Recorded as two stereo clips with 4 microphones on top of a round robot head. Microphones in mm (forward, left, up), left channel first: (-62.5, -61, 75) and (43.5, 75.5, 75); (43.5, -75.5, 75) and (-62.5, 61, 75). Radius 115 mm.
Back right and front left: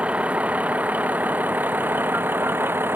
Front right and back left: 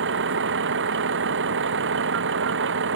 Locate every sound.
0.0 s a vehicle: 135° left; by 3.0 s 130° left